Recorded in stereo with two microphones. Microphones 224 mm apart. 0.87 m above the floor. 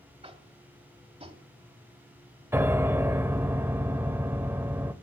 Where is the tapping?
25° right (ahead or behind), 1.2 m.